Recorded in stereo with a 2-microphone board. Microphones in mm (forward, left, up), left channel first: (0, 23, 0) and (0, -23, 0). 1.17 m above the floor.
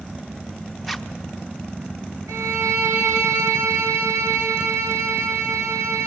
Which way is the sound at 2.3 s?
85° right.